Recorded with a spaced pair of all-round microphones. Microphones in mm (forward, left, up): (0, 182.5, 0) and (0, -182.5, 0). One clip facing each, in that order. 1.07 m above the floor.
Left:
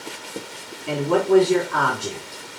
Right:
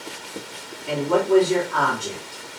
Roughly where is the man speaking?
Left.